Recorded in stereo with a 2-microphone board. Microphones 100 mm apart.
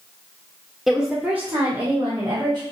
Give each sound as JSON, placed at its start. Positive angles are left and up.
{"t": 0.9, "sound": "a woman speaking", "side_deg": 0, "distance_m": 1.7}